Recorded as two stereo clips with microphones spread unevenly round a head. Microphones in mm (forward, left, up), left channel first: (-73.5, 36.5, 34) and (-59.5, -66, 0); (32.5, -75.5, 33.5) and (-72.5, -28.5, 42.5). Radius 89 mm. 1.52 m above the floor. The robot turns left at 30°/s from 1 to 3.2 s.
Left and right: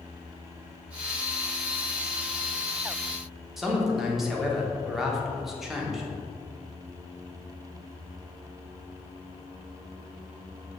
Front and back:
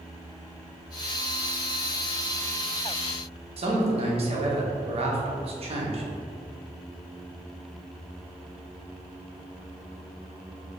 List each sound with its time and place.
3.6 s a man speaking: 175° right, 1.5 m